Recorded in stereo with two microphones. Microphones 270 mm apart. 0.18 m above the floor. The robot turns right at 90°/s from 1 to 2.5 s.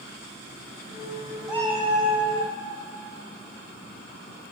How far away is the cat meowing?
About 1.2 m.